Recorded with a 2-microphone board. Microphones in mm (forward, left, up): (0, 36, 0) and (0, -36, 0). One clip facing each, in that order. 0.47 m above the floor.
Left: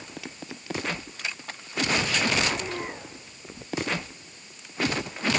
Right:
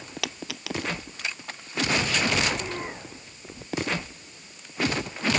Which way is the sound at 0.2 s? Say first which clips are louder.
Right 5 dB; 85° right.